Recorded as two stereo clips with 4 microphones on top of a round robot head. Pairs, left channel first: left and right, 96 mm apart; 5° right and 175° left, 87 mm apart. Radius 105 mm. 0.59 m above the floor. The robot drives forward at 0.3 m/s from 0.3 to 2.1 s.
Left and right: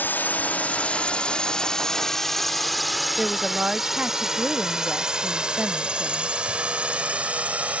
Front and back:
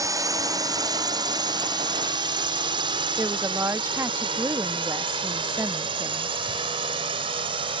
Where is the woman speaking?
160° right.